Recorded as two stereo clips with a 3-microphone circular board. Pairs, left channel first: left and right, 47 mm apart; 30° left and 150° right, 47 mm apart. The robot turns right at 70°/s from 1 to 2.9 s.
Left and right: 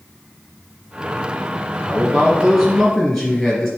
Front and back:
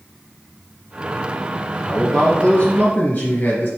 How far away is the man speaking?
About 2 m.